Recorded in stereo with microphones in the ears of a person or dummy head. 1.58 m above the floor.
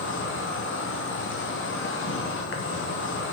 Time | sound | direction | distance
0.0 | an insect | 60° left (ahead or behind) | 0.8 m